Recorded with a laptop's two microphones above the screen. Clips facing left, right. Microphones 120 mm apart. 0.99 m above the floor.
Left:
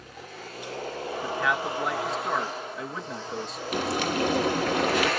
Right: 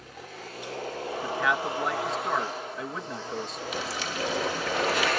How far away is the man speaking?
About 1.1 m.